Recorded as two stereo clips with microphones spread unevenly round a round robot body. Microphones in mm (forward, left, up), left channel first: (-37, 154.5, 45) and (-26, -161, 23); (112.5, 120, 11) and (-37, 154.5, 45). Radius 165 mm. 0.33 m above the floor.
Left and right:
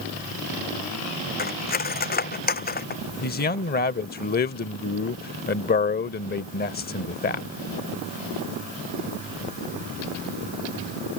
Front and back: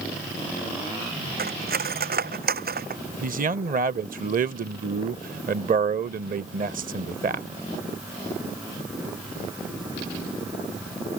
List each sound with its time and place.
1.4 s cutlery clinking: 155° left
3.2 s a man speaking: 150° left